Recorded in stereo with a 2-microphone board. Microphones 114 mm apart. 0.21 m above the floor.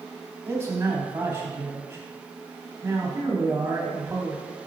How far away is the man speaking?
About 1.2 m.